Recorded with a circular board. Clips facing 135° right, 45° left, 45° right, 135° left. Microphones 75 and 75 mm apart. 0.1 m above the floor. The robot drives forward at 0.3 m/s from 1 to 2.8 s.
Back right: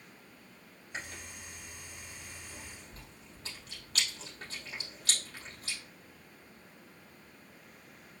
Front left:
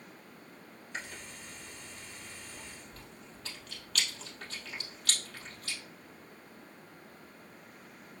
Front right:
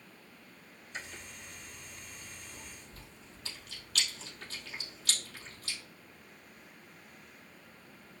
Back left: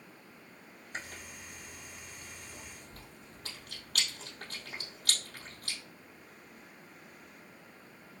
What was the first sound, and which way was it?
Chewing, 165° left.